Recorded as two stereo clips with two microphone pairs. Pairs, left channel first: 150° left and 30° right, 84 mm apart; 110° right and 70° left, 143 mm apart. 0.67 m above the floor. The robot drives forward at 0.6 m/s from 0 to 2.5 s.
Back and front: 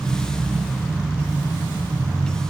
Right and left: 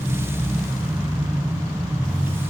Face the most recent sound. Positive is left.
No sound to turn to.